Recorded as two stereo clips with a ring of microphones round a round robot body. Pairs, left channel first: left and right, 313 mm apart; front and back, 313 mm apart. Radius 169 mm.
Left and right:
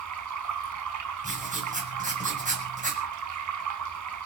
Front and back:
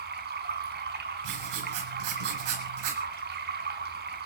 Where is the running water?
120° right, 3.5 m.